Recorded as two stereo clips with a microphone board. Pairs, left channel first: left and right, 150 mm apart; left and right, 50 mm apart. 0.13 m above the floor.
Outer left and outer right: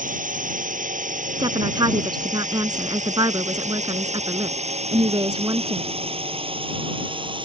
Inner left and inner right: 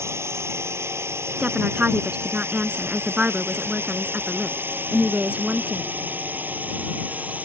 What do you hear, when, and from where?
0.0 s a drone: 65° right (ahead or behind); by 7.4 s 35° right (ahead or behind)
1.4 s a woman speaking: 30° right (ahead or behind)